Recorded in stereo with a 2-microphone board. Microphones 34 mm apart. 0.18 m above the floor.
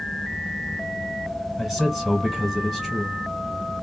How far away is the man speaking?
About 1.6 m.